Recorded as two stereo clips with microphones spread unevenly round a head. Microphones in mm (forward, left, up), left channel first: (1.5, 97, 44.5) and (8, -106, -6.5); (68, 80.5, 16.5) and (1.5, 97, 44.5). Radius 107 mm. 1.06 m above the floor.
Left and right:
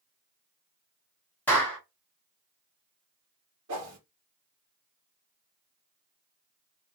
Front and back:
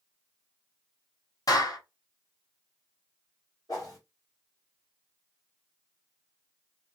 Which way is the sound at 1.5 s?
10° left.